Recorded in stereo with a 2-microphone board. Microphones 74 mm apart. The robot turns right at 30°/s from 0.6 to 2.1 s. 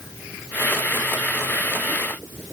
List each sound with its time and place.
Only background noise.